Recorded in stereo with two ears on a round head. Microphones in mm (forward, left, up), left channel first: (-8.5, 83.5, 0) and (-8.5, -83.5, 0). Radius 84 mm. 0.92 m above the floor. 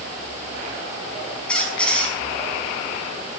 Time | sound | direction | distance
1.5 | a squeak | 5° left (ahead or behind) | 5.5 m